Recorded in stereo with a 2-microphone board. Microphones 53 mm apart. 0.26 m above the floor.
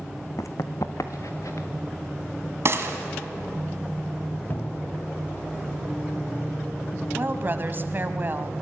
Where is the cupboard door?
40° left (ahead or behind), 1.4 m.